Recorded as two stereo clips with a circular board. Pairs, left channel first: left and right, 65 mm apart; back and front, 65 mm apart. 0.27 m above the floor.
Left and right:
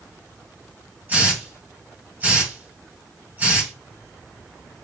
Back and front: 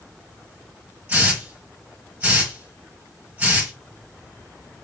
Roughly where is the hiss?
Ahead right.